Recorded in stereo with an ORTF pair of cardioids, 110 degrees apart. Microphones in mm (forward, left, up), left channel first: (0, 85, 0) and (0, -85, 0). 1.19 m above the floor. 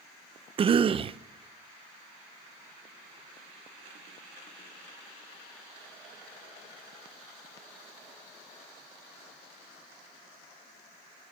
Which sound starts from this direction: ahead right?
A cough, at 0.6 s.